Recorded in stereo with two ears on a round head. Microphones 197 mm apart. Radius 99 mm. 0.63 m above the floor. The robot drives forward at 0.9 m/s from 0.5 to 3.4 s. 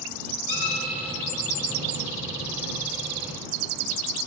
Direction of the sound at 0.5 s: 60° left (ahead or behind).